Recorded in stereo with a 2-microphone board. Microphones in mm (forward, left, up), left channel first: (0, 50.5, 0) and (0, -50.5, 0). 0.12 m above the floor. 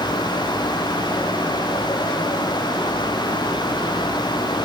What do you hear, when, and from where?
Only background noise.